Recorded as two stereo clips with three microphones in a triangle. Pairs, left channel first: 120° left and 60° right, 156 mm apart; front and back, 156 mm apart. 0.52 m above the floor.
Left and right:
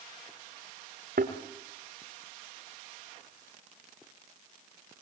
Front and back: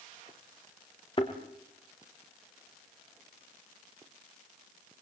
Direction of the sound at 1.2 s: 55° right.